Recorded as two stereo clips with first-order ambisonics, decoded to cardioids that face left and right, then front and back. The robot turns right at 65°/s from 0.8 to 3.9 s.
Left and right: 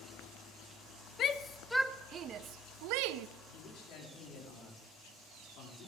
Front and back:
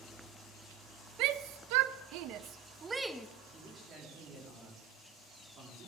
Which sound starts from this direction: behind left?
A shout, at 1.2 s.